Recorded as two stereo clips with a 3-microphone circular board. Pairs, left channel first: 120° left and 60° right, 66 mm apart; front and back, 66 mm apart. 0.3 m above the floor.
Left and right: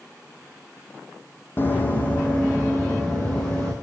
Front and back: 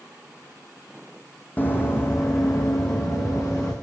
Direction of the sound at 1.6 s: 65° left.